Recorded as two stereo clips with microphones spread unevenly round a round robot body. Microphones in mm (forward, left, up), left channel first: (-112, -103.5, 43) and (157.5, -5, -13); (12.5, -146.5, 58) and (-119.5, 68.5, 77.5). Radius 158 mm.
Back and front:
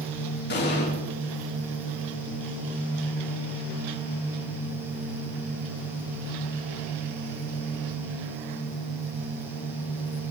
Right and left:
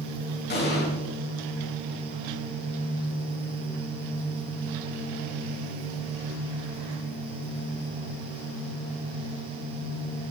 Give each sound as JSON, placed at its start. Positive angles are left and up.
{"t": 0.5, "sound": "an explosion", "azimuth_deg": -105, "distance_m": 6.0}